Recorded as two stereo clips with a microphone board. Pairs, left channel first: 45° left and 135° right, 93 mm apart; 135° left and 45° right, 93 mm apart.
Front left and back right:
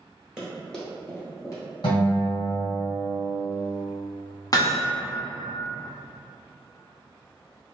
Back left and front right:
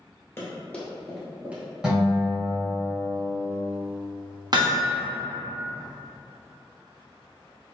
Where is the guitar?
35° left, 1.5 m.